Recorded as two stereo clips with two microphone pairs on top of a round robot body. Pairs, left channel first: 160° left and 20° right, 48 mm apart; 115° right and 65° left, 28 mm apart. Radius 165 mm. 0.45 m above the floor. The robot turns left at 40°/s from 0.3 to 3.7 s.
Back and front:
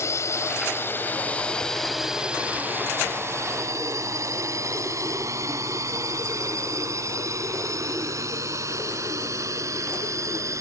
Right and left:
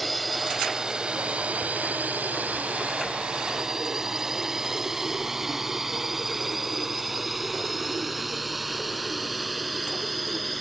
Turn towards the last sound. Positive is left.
turn(degrees=-30)